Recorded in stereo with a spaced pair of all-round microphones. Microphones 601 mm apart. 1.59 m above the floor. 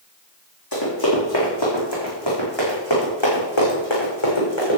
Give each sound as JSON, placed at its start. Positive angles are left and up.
{"t": 0.7, "sound": "running footsteps", "side_deg": 35, "distance_m": 5.0}